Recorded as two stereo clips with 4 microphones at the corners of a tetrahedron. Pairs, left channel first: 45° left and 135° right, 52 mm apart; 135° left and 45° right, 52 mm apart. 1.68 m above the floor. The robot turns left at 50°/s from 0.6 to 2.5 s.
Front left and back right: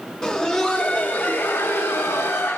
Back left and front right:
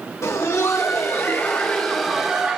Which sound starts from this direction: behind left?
Laughter, at 0.2 s.